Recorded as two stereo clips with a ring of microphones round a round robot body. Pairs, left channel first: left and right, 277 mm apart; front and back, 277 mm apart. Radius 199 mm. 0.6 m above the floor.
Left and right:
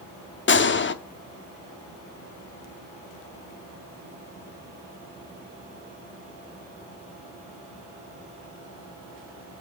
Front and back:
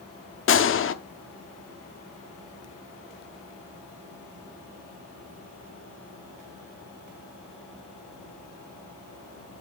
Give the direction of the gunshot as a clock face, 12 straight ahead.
11 o'clock.